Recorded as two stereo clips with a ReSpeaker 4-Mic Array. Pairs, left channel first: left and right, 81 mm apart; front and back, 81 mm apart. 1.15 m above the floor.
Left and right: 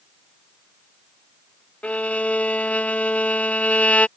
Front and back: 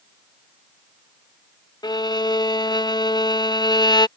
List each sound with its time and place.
1.8 s a violin: 20° left